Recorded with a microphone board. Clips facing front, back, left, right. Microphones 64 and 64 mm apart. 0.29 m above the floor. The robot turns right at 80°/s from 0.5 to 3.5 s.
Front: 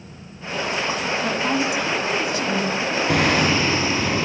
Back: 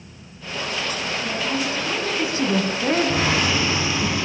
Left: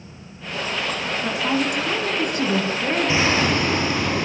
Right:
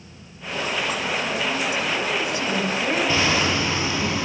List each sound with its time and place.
1.2 s a woman speaking: 35° left, 3 m; by 4.1 s 145° right, 3 m
3.1 s hammering: 20° left, 5 m; by 4.2 s 55° left, 5 m